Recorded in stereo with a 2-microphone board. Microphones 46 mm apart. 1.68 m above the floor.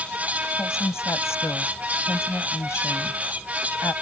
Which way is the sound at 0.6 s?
85° left.